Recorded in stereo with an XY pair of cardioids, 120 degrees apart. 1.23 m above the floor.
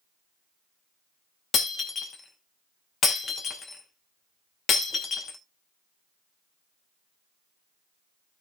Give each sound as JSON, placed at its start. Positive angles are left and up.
{"t": 1.5, "sound": "breaking glass", "azimuth_deg": 50, "distance_m": 2.5}